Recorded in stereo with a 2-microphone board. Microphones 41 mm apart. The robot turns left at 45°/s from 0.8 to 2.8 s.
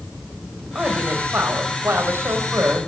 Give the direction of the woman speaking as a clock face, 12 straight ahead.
1 o'clock.